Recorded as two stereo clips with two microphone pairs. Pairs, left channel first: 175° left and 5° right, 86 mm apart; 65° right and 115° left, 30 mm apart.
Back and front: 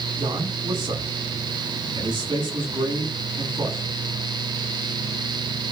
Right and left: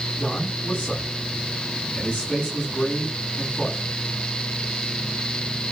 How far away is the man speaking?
About 8.5 m.